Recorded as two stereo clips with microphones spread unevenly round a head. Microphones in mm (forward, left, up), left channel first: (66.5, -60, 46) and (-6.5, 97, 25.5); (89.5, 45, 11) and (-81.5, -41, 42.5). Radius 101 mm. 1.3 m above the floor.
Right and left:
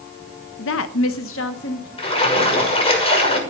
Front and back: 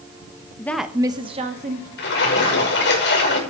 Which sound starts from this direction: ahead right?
A woman speaking, at 0.6 s.